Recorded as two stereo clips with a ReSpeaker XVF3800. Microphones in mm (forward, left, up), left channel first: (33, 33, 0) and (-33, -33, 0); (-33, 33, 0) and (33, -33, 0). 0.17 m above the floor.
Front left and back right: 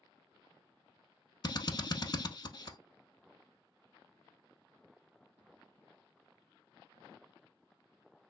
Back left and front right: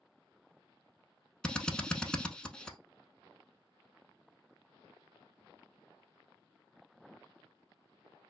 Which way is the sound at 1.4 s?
55° left.